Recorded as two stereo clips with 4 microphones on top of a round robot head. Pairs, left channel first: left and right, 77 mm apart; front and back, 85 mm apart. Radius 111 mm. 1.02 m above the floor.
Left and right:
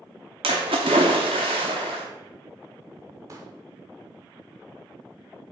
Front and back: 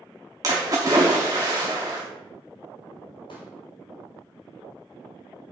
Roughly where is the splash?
Behind right.